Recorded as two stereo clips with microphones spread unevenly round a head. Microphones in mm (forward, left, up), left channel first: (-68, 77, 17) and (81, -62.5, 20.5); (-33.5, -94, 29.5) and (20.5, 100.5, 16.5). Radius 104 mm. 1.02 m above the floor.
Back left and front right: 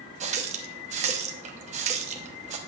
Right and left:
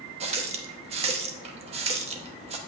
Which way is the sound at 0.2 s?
15° left.